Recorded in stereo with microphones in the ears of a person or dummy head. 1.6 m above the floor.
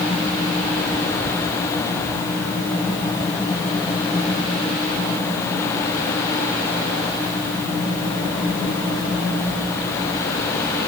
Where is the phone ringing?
No phone ringing in this recording.